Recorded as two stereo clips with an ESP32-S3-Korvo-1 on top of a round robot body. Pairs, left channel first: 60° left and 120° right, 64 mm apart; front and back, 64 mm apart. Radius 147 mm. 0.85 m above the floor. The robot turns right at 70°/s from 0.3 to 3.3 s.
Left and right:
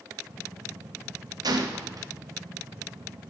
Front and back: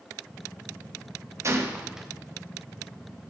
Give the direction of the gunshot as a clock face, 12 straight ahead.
5 o'clock.